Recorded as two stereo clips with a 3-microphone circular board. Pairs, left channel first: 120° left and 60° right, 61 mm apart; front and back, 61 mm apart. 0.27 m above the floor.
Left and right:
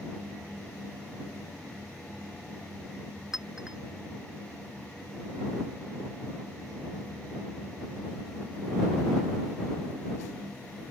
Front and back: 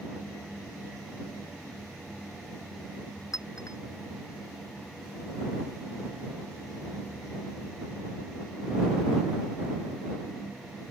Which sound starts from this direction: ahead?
A clink, at 3.3 s.